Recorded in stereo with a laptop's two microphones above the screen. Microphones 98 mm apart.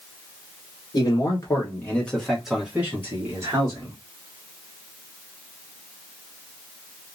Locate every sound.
0.9 s a man speaking: 40° left (ahead or behind), 1.2 m; by 4.0 s 40° right (ahead or behind), 1.4 m